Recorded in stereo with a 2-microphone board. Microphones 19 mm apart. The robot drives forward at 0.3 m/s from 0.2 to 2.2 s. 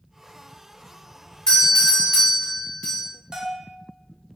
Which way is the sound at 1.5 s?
35° left (ahead or behind).